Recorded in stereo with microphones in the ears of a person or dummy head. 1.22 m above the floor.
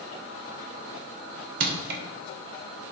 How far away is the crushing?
About 2.0 m.